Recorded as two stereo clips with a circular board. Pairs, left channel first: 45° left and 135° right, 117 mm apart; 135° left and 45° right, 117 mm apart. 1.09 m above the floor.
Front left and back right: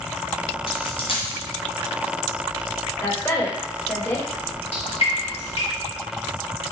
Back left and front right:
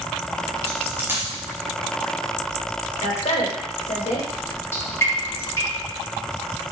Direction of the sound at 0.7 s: 25° left.